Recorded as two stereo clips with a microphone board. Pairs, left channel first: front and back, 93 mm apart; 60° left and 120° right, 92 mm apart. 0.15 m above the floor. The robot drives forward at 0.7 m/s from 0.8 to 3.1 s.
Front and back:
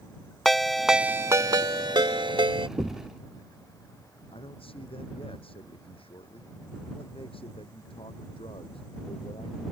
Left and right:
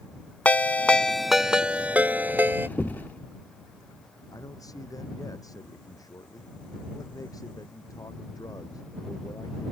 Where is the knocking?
155° left; by 3.1 s 165° left.